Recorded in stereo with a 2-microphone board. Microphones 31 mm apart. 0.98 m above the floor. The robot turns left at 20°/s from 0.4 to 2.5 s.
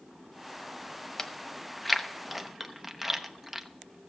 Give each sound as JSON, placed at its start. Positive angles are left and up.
{"t": 1.2, "sound": "chewing", "side_deg": 15, "distance_m": 0.7}